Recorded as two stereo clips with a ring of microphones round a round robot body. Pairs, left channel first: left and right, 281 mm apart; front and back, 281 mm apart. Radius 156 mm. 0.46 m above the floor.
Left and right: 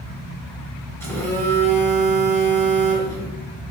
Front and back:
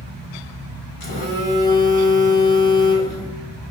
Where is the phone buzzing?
10° left, 1.3 m.